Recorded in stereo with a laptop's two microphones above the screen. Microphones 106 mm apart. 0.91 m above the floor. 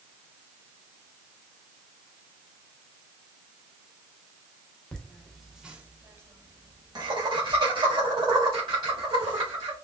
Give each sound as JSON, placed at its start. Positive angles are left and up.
{"t": 4.9, "sound": "laughter", "side_deg": 10, "distance_m": 1.0}